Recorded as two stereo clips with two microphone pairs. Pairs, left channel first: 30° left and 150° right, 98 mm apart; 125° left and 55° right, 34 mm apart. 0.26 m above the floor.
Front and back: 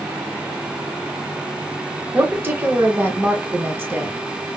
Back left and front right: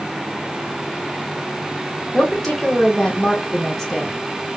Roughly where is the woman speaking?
Behind right.